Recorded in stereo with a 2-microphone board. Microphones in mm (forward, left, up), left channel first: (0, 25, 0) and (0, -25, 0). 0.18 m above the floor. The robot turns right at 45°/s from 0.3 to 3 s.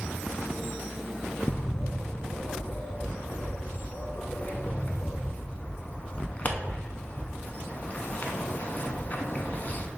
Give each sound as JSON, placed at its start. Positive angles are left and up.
{"t": 1.5, "sound": "a bird", "side_deg": 45, "distance_m": 0.5}